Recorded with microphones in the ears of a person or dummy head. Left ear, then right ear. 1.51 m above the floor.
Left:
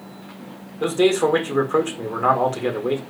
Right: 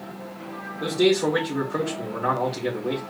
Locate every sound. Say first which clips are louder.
0.8 s a man speaking: left 3 dB; 65° left (ahead or behind), 1.3 m